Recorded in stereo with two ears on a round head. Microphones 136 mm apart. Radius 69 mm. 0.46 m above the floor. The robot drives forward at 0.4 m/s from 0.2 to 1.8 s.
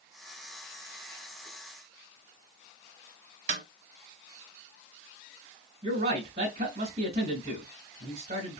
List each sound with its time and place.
3.5 s a snare drum: 55° right (ahead or behind), 1.5 m
5.8 s a man speaking: 40° right (ahead or behind), 3 m